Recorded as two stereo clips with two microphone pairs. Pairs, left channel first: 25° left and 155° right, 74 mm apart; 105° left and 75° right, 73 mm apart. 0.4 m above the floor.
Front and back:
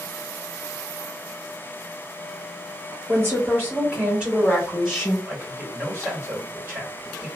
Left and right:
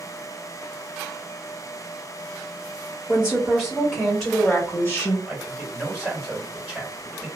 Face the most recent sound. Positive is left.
turn(degrees=-130)